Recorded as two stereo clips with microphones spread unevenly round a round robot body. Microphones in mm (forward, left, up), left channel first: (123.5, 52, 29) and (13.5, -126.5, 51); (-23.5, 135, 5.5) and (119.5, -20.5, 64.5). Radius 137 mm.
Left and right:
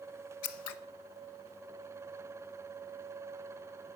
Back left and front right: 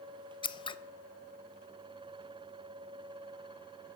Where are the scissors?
60° left, 0.5 m.